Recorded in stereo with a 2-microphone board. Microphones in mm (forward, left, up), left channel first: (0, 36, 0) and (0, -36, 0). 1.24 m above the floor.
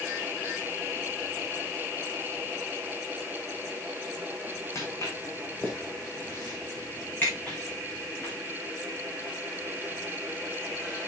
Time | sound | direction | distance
4.8 | footsteps | 40° left (ahead or behind) | 3.5 m